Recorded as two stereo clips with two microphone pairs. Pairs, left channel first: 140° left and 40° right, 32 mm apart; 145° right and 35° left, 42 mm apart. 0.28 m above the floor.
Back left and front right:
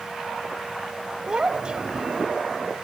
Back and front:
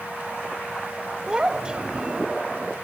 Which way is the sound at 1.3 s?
15° right.